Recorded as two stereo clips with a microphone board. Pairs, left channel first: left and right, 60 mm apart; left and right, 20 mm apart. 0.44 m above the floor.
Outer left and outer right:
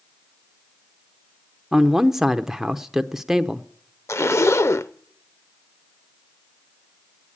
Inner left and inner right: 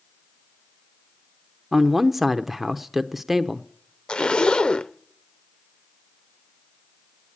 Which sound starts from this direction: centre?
A man speaking, at 1.7 s.